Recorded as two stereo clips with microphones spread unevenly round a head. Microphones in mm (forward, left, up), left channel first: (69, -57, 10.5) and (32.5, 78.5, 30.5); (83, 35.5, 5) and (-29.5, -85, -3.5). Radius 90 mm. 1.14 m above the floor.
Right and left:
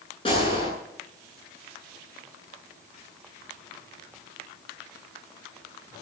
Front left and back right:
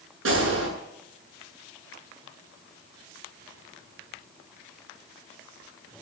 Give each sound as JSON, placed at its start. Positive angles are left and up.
{"t": 0.2, "sound": "a gunshot", "azimuth_deg": -140, "distance_m": 9.0}